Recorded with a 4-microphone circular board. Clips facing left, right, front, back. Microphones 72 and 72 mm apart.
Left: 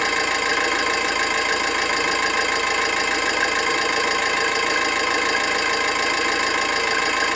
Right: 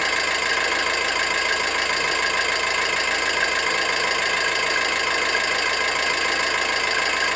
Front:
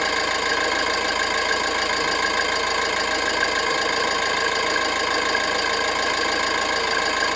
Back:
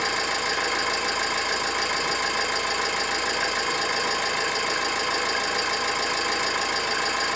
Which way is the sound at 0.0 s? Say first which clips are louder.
Left 2 dB, front 4 dB; 10° left.